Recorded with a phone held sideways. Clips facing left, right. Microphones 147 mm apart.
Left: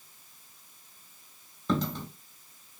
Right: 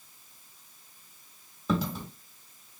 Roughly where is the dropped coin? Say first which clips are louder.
Even; centre.